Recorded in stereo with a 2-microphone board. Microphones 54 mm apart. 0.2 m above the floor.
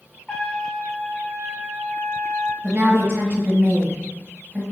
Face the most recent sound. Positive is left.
turn(degrees=-25)  # may be behind; listen again after turning